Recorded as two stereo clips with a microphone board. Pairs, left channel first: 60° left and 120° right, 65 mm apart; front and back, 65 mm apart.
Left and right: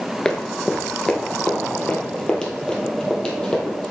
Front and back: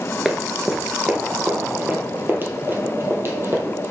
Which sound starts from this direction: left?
Running footsteps, at 0.2 s.